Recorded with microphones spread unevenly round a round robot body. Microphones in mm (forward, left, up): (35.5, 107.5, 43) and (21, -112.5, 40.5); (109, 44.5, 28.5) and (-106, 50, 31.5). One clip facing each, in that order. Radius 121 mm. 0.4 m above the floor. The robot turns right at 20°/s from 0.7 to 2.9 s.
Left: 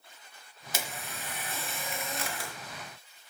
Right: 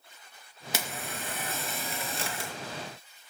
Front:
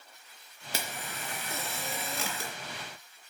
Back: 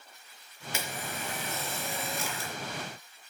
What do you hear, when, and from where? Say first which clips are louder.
0.7 s a camera shutter: right 3 dB, back 2 dB; 60° right, 3.5 m; by 2.5 s 25° right, 3.5 m